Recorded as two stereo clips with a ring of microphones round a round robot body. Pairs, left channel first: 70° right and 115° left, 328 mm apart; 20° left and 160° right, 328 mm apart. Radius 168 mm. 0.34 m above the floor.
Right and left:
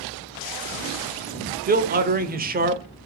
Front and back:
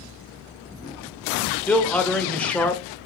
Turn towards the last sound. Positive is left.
turn(degrees=105)